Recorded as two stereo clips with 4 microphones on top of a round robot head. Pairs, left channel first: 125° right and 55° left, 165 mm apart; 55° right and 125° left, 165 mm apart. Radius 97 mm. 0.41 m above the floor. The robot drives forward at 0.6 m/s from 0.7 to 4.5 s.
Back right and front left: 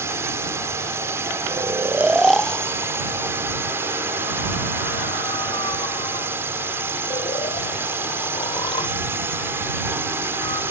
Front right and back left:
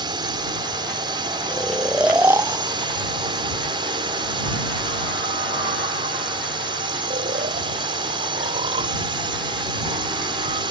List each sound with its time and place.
0.0 s a drone: 110° left; by 10.7 s 115° left
1.5 s snoring: 20° left; by 10.6 s 175° left